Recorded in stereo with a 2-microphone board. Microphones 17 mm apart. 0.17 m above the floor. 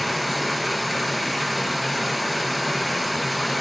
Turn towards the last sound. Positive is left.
turn(degrees=-5)  # may be behind; listen again after turning